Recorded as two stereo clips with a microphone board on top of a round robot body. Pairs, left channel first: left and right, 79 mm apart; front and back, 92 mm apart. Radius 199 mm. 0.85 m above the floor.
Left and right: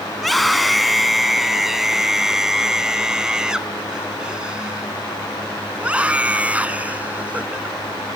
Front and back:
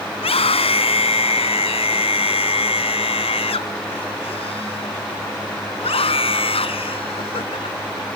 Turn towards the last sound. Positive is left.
turn(degrees=-20)